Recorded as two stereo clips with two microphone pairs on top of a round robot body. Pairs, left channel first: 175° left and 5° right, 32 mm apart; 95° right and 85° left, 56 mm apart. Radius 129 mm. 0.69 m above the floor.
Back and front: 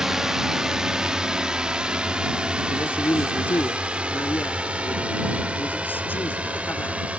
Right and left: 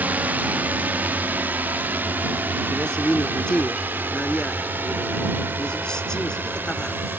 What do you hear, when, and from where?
0.0 s a drone: 50° left; by 7.2 s 35° left
2.7 s a man speaking: 170° right